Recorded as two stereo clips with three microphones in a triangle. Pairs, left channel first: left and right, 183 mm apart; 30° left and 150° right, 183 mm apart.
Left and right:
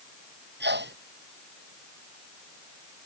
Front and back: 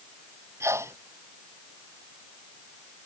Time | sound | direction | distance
0.6 | a sneeze | 75° right | ?